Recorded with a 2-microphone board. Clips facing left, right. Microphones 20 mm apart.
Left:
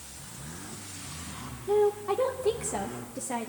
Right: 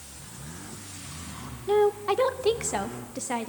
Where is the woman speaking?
45° right (ahead or behind), 0.8 m.